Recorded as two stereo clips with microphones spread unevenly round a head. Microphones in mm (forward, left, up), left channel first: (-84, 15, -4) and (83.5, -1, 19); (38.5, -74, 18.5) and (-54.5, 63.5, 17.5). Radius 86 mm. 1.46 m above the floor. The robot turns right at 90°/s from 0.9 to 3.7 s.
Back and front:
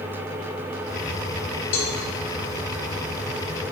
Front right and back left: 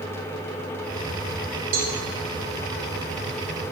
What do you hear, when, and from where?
1.7 s a cowbell: 160° left, 1.0 m; by 1.9 s straight behind, 1.0 m